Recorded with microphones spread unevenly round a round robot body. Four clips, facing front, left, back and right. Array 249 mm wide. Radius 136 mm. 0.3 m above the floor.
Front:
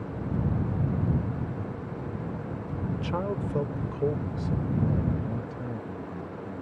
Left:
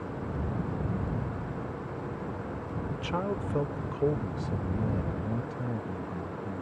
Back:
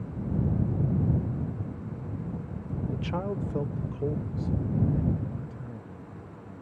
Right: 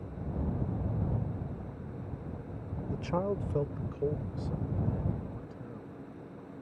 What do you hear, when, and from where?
2.9 s a man speaking: 85° right; by 6.6 s 55° left